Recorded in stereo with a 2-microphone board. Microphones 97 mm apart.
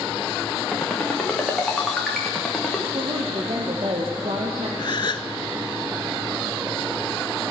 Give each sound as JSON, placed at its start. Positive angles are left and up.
{"t": 0.7, "sound": "a ringtone", "side_deg": 5, "distance_m": 4.5}
{"t": 2.9, "sound": "a woman speaking", "side_deg": -65, "distance_m": 2.5}
{"t": 4.8, "sound": "a gasp", "side_deg": 50, "distance_m": 0.8}